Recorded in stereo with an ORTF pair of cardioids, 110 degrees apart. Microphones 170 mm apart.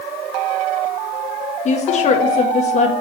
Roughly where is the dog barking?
No dog barking in this recording.